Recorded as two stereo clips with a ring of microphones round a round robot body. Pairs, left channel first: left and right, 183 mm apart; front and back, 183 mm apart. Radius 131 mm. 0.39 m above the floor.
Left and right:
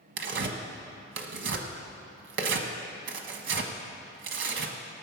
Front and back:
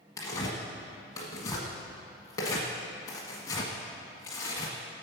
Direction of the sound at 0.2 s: 75° right.